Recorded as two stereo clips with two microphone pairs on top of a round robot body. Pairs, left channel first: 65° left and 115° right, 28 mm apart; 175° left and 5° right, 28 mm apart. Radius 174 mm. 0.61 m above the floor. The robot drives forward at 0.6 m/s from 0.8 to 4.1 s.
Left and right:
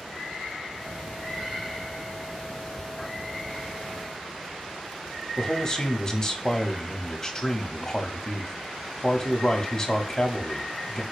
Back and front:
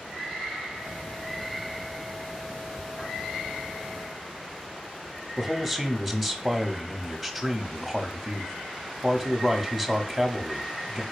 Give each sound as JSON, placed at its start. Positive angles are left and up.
{"t": 5.4, "sound": "a man speaking", "azimuth_deg": 95, "distance_m": 1.2}